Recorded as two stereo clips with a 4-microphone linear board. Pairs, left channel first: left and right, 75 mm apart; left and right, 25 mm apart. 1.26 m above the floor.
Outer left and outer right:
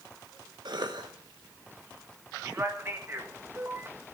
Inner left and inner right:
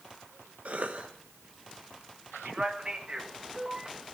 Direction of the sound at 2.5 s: 35° right (ahead or behind).